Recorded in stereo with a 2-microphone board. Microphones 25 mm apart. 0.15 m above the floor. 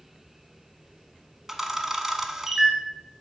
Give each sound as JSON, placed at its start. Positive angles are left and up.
{"t": 1.5, "sound": "a camera shutter", "side_deg": -15, "distance_m": 0.9}